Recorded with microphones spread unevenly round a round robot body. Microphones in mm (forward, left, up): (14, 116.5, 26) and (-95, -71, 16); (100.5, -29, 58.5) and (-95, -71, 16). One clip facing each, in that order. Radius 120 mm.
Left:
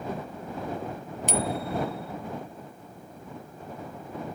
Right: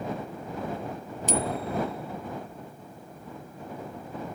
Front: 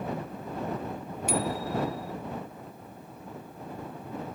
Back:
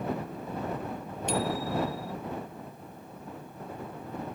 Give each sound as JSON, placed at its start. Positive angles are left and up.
{"t": 1.3, "sound": "a bicycle bell", "azimuth_deg": 95}